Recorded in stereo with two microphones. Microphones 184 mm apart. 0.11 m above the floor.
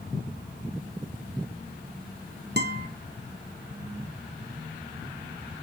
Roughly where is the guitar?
Right.